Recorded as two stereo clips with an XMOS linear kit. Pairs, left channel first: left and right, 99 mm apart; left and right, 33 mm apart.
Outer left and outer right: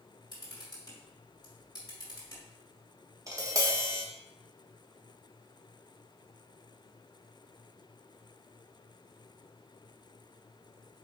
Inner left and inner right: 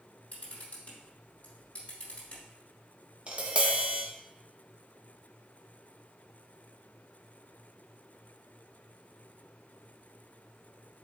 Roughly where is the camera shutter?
Left.